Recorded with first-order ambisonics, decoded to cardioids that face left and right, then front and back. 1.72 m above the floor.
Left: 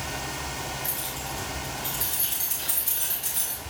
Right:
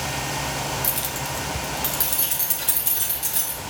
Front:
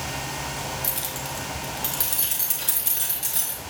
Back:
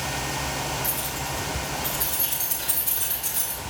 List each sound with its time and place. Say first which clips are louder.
0.8 s keys jangling: right 5 dB, back 1 dB; 65° right, 1.0 m; by 3.6 s 45° right, 3 m